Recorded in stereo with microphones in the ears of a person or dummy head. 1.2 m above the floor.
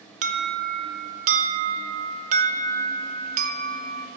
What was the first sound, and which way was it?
An alarm, 40° right (ahead or behind).